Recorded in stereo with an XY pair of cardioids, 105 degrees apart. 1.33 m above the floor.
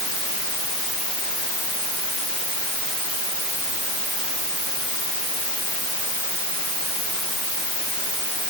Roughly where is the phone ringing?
No phone ringing in this recording.